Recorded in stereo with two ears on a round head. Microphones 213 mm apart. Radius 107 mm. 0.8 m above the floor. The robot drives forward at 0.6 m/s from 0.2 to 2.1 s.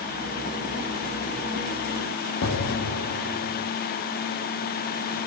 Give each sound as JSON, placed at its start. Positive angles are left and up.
{"t": 2.4, "sound": "an explosion", "side_deg": 65, "distance_m": 1.1}